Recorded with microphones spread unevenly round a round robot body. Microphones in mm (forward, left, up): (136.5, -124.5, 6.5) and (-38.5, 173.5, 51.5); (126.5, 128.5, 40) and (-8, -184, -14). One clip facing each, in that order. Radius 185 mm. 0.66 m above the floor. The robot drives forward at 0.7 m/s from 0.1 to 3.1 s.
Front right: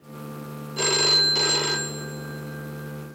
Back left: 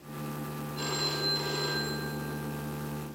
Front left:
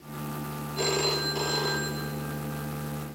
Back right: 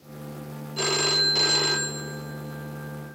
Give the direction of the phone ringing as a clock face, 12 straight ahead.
2 o'clock.